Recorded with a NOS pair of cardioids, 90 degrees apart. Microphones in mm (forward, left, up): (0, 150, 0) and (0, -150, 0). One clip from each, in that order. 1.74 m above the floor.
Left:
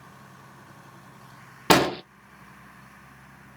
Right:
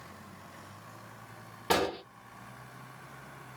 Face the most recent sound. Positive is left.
turn(degrees=60)